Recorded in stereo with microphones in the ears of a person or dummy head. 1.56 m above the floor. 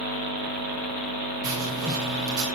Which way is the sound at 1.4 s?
30° right (ahead or behind).